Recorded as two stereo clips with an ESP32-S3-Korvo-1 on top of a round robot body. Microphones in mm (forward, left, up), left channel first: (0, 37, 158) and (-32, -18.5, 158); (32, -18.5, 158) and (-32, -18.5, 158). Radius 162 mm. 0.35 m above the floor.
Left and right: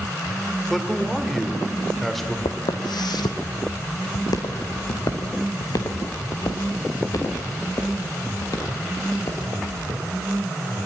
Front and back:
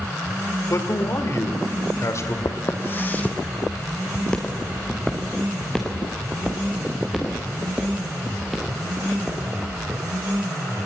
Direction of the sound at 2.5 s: 50° left.